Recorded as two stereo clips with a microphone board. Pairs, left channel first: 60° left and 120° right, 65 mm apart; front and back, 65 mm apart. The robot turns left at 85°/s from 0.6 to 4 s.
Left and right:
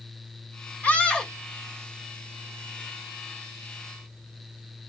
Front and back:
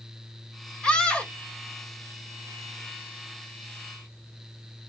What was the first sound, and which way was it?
A scream, 50° left.